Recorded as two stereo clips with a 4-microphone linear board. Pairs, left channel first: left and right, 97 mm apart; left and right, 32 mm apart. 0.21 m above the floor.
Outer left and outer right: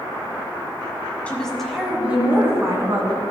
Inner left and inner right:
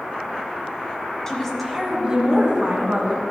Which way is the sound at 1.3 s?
15° left (ahead or behind).